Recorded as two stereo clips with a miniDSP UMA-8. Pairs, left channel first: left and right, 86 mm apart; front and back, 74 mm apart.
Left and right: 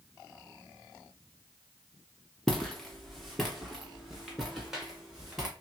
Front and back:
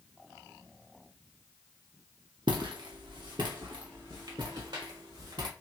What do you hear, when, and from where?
2.5 s footsteps: 175° left, 1.2 m; by 5.5 s 175° right, 3 m